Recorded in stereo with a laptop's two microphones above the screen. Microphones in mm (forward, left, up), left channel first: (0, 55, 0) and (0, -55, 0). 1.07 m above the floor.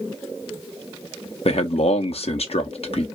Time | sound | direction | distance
1.4 | a man speaking | 65° left (ahead or behind) | 0.8 m